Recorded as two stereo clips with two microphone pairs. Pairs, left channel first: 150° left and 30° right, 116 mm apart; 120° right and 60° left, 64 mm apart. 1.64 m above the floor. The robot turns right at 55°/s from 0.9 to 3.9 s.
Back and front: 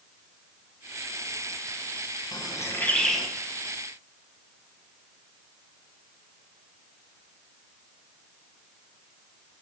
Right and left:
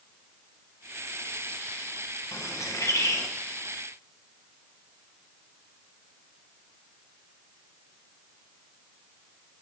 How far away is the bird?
About 1.0 m.